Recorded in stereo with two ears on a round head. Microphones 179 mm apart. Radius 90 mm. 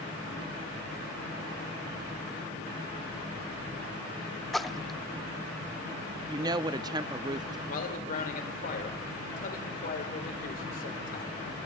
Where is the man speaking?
45° left (ahead or behind), 2.5 m.